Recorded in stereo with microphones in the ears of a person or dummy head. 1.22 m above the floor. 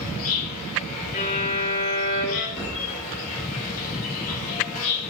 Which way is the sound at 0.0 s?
40° left (ahead or behind).